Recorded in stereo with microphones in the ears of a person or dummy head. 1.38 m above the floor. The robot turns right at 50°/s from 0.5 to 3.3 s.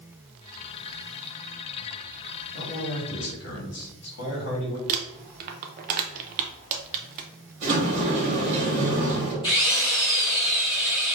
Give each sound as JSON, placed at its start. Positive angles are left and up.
{"t": 2.5, "sound": "a man speaking", "azimuth_deg": 75, "distance_m": 1.7}
{"t": 4.9, "sound": "crumpling", "side_deg": -50, "distance_m": 0.6}
{"t": 7.6, "sound": "a sliding door", "side_deg": -45, "distance_m": 1.6}
{"t": 9.4, "sound": "a drill", "side_deg": 25, "distance_m": 2.0}